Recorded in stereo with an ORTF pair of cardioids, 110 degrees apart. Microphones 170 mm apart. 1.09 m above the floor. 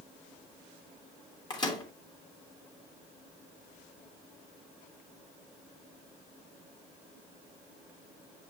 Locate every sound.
1.5 s a microwave: 25° left, 2.5 m